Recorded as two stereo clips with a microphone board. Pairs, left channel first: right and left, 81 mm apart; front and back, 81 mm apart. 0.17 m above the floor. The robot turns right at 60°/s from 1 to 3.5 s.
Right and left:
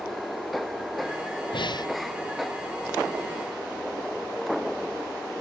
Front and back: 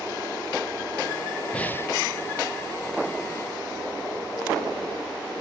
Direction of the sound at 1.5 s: 75° right.